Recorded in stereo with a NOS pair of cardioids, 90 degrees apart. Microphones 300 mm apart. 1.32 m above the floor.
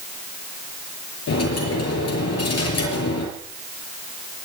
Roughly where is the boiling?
No boiling in this recording.